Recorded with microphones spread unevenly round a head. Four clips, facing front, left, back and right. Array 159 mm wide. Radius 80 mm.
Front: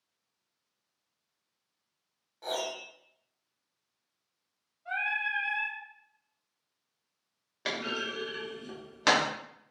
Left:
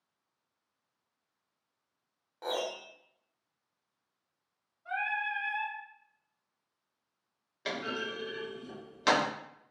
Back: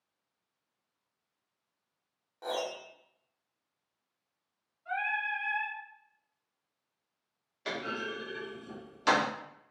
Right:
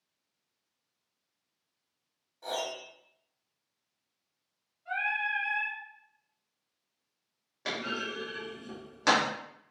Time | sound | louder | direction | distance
2.4 | a piano | left 1 dB, even | 105° left | 0.8 m
4.8 | singing | right 1 dB, even | 70° left | 1.5 m
7.7 | a clunk | even, front 1 dB | 5° right | 1.2 m